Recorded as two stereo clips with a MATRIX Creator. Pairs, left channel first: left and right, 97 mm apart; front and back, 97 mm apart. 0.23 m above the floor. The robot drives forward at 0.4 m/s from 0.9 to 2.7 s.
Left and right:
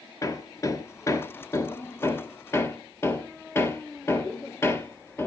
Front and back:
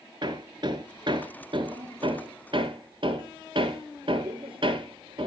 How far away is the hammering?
About 2.0 m.